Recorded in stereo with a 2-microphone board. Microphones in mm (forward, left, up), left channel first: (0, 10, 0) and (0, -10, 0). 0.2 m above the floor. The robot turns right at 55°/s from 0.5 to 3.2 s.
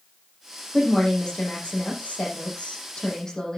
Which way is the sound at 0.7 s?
15° left.